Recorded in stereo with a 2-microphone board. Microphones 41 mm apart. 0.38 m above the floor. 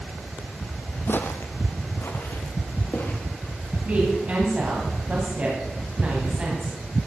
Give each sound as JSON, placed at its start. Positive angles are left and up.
{"t": 1.1, "sound": "footsteps", "side_deg": 50, "distance_m": 0.8}
{"t": 3.9, "sound": "a woman speaking", "side_deg": -35, "distance_m": 2.5}